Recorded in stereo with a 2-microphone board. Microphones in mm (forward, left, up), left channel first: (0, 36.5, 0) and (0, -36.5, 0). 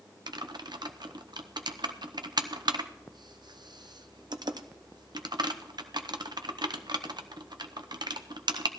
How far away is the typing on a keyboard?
About 0.8 m.